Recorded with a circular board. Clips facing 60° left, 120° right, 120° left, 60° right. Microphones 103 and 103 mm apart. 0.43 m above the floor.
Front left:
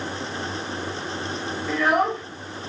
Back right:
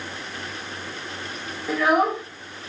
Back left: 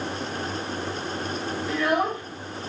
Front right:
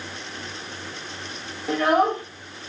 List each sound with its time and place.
1.7 s a child speaking: 35° right, 1.2 m